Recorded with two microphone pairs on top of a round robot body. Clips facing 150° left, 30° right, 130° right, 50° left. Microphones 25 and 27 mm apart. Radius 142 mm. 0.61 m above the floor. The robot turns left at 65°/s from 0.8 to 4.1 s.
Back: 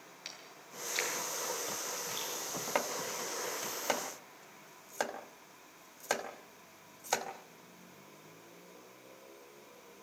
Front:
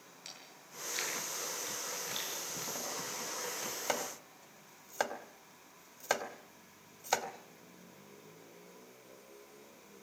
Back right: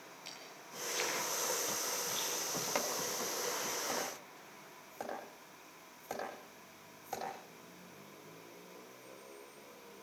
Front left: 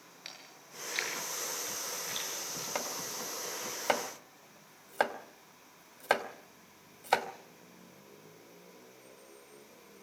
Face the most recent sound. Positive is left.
turn(degrees=55)